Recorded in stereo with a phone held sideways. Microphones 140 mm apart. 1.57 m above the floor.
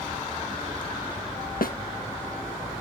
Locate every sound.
1.6 s a snare drum: 90° left